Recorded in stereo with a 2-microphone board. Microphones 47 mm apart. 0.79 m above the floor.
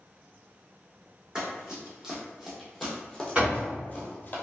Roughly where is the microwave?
I don't hear a microwave.